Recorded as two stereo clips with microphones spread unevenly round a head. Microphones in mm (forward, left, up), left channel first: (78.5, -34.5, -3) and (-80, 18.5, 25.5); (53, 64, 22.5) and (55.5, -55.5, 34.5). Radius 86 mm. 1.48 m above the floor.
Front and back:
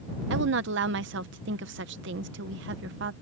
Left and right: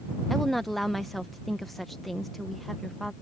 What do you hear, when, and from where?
0.3 s a woman speaking: straight behind